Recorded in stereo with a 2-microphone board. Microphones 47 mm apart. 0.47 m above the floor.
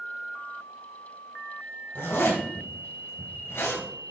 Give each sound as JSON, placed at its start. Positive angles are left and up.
{"t": 1.9, "sound": "a zipper", "side_deg": 65, "distance_m": 3.5}